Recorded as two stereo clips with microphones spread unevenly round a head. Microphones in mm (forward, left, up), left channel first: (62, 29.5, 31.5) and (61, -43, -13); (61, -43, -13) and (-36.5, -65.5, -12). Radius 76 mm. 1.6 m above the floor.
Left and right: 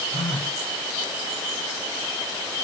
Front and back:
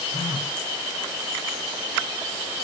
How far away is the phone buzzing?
About 3 m.